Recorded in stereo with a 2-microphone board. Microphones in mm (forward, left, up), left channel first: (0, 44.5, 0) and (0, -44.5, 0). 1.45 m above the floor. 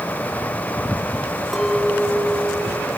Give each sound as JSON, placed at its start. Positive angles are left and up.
{"t": 1.5, "sound": "a clink", "side_deg": 5, "distance_m": 3.0}